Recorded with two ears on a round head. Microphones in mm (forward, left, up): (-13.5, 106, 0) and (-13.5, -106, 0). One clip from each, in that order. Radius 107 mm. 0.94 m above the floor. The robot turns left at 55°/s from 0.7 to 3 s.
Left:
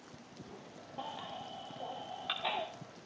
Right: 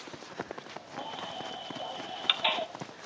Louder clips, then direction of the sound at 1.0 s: Right 4 dB; 15° right (ahead or behind).